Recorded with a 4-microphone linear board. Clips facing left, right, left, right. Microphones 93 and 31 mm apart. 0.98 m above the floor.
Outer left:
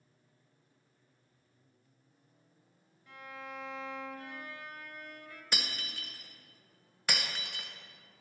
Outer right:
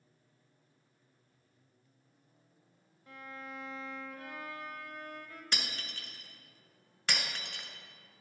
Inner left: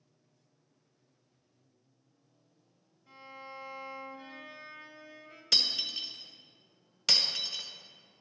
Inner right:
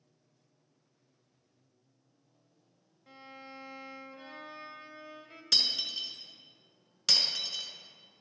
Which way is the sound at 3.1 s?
40° right (ahead or behind).